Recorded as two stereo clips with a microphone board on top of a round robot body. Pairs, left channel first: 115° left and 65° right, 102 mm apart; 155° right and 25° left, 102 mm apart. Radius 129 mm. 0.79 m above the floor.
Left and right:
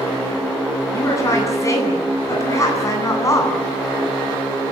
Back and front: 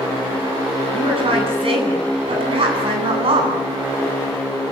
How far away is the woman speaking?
About 9.5 m.